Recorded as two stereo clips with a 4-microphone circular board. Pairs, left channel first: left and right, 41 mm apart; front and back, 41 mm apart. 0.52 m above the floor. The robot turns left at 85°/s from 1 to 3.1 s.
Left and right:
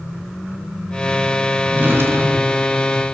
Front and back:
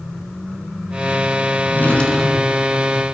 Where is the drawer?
35° right, 3 m; by 2.7 s 125° right, 3 m.